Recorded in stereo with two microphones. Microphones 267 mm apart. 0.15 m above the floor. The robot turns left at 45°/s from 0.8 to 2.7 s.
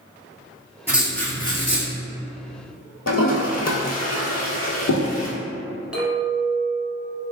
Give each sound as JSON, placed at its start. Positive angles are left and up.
{"t": 0.9, "sound": "writing", "azimuth_deg": -170, "distance_m": 0.8}
{"t": 3.1, "sound": "a toilet flushing", "side_deg": 75, "distance_m": 0.7}
{"t": 5.9, "sound": "a clink", "side_deg": -5, "distance_m": 1.1}